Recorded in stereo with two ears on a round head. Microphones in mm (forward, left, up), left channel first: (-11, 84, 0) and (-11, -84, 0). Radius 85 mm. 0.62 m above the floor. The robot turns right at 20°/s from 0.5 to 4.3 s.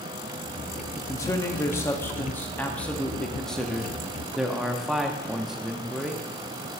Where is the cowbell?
I don't hear a cowbell.